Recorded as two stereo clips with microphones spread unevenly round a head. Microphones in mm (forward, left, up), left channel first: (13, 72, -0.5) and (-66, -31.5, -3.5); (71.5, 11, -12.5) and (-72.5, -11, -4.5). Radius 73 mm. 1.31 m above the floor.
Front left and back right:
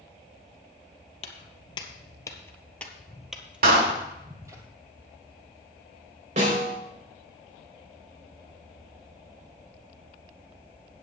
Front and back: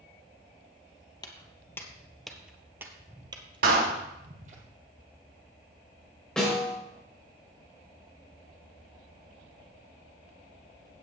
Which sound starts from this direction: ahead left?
Footsteps, at 1.2 s.